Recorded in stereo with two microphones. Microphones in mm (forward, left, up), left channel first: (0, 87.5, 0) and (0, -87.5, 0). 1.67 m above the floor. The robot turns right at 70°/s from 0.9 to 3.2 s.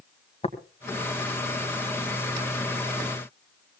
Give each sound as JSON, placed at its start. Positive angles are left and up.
{"t": 0.4, "sound": "tapping", "side_deg": 35, "distance_m": 2.0}